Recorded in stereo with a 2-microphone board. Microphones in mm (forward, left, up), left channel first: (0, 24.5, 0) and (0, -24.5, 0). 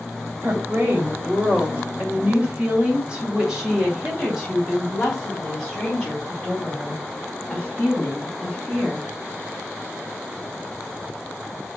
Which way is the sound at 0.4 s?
45° right (ahead or behind).